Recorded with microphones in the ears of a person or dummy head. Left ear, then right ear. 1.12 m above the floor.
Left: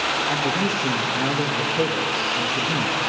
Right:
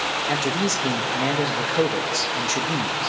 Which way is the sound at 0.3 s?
75° right (ahead or behind).